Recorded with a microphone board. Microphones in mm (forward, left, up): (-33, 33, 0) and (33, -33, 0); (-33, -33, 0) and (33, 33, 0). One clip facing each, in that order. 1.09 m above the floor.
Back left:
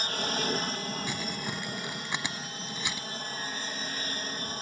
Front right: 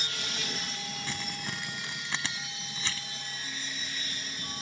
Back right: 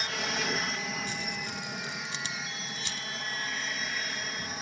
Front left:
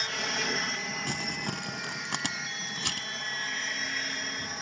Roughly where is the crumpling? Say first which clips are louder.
Back left 3 dB, front left 2 dB; ahead left.